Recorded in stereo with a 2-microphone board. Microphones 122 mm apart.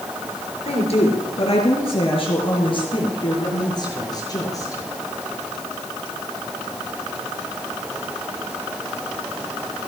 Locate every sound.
0.7 s a woman speaking: 55° left (ahead or behind), 6 m; by 4.8 s 25° left (ahead or behind), 5.5 m